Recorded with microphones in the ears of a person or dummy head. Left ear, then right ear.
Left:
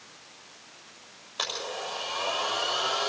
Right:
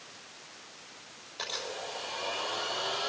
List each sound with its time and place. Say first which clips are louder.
1.4 s a blender: left 4 dB; 40° left (ahead or behind), 6.5 m